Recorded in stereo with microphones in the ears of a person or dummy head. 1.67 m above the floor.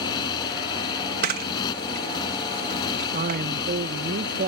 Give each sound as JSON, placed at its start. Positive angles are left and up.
{"t": 0.0, "sound": "a motorcycle", "side_deg": 25}
{"t": 1.2, "sound": "a camera shutter", "side_deg": -50}
{"t": 3.1, "sound": "a man speaking", "side_deg": -45}